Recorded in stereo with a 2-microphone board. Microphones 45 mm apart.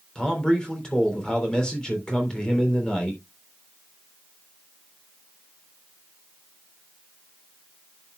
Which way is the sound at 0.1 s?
20° left (ahead or behind).